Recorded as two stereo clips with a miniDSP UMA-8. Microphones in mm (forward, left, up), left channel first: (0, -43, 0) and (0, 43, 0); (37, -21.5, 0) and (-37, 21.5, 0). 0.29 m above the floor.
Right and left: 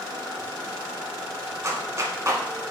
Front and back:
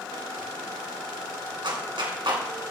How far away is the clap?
About 1.8 m.